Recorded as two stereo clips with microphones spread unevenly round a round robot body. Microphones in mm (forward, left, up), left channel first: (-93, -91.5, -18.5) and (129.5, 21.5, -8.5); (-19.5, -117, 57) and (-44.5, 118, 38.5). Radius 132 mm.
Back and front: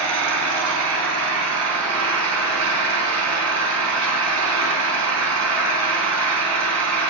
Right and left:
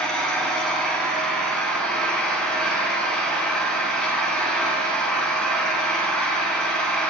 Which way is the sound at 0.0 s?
5° left.